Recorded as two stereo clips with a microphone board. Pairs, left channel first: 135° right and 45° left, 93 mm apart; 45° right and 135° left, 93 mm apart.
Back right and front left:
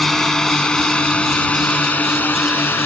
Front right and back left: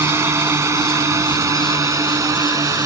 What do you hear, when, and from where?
0.0 s a drone: 140° left; by 2.9 s 165° left